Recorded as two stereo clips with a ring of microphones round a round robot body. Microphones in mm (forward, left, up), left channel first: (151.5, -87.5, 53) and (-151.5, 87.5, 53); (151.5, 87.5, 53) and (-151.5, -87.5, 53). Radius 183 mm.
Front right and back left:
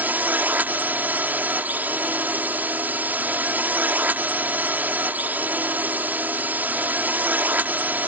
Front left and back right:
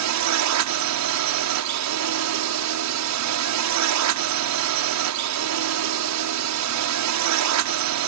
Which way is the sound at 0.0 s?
125° right.